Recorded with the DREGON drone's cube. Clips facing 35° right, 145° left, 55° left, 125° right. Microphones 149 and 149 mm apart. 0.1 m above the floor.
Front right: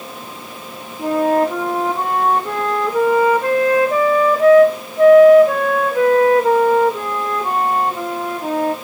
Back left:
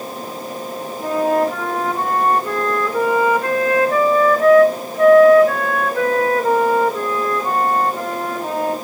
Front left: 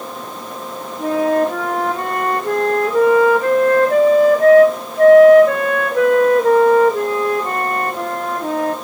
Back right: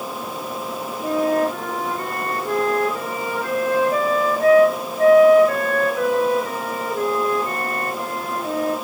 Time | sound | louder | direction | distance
1.0 | a flute | front right 2 dB, front left 4 dB | 40° left | 1.1 m